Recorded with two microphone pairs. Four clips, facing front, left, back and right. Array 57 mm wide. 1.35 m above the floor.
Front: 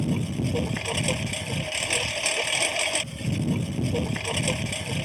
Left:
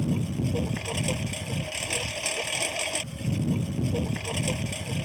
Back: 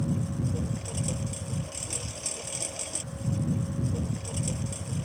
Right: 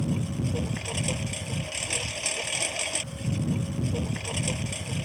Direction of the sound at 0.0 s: 5° left.